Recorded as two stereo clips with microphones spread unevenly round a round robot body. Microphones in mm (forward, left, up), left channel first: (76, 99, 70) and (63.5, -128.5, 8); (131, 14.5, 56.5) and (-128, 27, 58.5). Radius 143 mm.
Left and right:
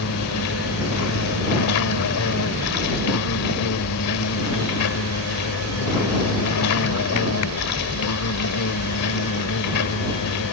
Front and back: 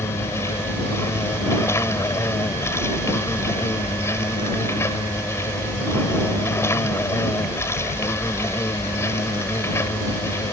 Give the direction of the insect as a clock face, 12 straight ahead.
9 o'clock.